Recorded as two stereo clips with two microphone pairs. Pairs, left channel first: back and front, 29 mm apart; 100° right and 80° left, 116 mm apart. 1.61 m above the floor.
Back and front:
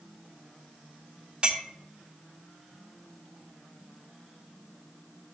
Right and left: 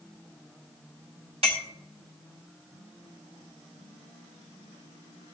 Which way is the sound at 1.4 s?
55° left.